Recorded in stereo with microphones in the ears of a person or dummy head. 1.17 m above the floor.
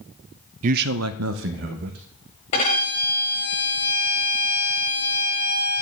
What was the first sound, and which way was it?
A man speaking, 45° right (ahead or behind).